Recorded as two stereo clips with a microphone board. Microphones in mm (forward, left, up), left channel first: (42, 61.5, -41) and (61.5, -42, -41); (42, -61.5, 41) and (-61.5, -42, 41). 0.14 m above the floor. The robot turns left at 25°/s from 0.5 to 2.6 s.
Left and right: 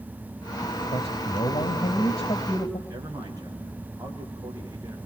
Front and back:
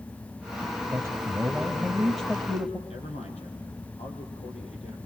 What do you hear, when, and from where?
0.9 s a man speaking: 105° left, 4 m; by 2.8 s 65° left, 4 m
2.9 s a man speaking: 25° right, 7 m